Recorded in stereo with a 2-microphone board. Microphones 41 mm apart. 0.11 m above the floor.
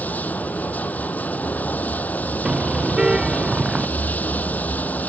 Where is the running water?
45° left (ahead or behind).